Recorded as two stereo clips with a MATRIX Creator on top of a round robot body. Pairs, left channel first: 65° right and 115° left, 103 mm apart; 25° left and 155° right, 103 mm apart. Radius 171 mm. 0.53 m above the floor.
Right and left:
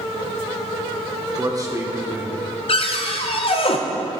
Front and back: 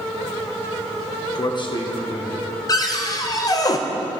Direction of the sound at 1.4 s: 65° left.